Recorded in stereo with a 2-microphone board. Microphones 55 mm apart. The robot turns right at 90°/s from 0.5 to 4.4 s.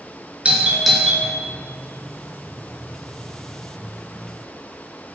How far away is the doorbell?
About 2 m.